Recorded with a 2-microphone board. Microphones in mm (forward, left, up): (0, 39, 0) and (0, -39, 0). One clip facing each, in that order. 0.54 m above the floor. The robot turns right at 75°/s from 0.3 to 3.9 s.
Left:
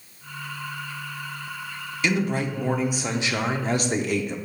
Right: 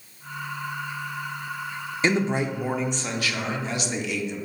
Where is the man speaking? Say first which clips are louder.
Right 1 dB; 55° right, 0.8 m; by 4.4 s 85° left, 0.8 m.